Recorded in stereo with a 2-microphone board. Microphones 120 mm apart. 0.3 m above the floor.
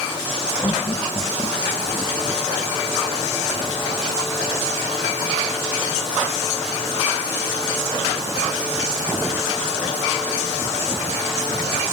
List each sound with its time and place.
0.6 s laughter: 30° left (ahead or behind)